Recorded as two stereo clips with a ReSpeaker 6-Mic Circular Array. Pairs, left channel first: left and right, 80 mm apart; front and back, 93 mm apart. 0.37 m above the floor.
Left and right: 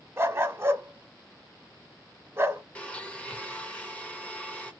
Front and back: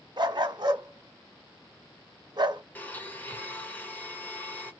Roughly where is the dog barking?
Behind right.